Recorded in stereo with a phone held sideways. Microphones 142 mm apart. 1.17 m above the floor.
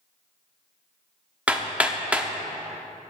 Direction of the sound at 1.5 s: 10° right (ahead or behind).